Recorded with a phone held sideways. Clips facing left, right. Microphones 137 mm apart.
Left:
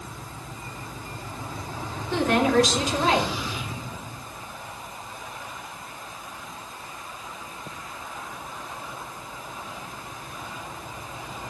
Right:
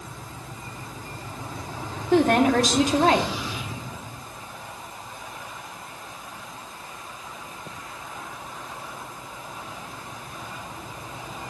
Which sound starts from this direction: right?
A woman speaking, at 2.1 s.